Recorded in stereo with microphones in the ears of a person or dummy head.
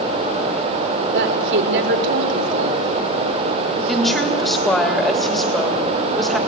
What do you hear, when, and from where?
1.1 s a woman speaking: 65° right (ahead or behind), 4 m
3.9 s a woman speaking: 5° left (ahead or behind), 3 m